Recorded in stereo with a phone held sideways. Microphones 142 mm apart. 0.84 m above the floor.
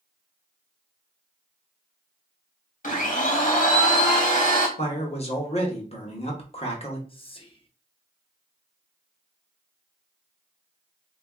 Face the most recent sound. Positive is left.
turn(degrees=35)  # may be behind; listen again after turning